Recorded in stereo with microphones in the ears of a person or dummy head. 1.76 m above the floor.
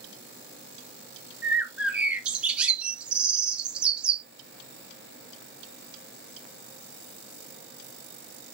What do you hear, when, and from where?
1.4 s a bird: 5° right (ahead or behind), 0.5 m